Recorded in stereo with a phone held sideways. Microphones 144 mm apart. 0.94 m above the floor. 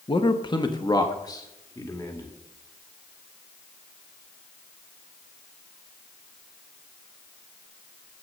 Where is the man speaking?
35° left (ahead or behind), 0.8 m; by 2.3 s 20° left (ahead or behind), 2.0 m.